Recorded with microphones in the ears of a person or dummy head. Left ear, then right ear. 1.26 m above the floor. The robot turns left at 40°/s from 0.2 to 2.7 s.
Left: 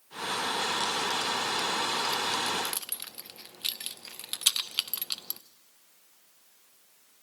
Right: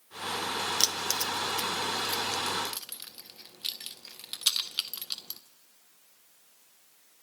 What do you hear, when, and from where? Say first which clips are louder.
0.8 s keys jangling: even; 60° right (ahead or behind), 0.6 m; by 5.4 s 15° left (ahead or behind), 0.6 m